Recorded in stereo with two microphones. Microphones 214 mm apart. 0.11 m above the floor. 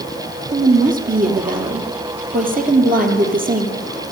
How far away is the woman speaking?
About 2.5 m.